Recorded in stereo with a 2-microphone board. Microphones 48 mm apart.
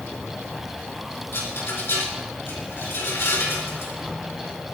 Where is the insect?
Centre (ahead or behind), 1.8 m.